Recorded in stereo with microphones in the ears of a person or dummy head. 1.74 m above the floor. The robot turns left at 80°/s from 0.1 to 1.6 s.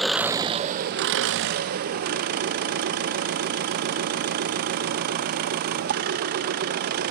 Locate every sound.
0.0 s an engine running: straight ahead, 0.8 m; by 7.1 s 120° right, 0.8 m